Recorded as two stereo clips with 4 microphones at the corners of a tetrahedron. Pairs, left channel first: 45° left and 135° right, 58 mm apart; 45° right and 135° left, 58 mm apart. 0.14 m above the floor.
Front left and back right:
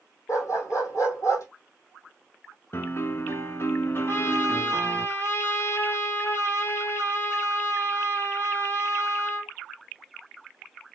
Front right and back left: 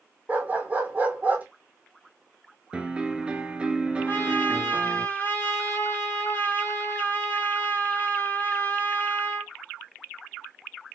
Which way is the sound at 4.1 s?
5° left.